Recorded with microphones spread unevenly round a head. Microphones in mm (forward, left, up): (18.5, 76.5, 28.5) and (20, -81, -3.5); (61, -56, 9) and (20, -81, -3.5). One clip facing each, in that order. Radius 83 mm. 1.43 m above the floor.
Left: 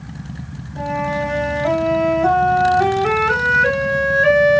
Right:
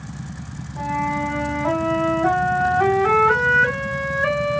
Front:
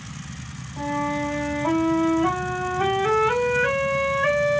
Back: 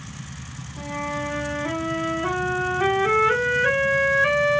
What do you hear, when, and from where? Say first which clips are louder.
0.8 s a flute: left 3 dB, front 4 dB; 70° left, 1.9 m